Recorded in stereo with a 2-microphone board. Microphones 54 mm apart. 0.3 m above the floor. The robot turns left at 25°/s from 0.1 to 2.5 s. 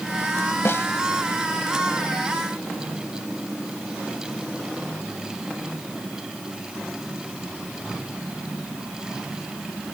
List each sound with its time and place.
0.7 s a snare drum: 50° left (ahead or behind); by 0.9 s 55° left (ahead or behind)